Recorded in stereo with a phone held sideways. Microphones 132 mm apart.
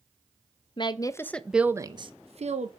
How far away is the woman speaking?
About 0.7 m.